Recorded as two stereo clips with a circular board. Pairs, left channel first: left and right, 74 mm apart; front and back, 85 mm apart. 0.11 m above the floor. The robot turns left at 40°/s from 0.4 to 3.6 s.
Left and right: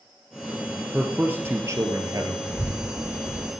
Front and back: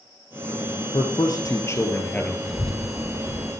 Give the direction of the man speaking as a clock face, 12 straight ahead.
1 o'clock.